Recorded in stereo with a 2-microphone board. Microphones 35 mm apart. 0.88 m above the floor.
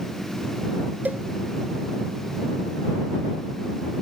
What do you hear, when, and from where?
1.1 s a cowbell: 60° right (ahead or behind)